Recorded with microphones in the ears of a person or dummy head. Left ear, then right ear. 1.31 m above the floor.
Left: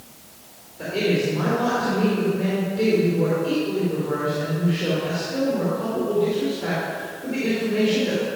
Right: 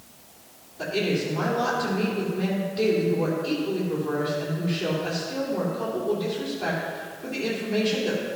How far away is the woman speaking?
About 3 m.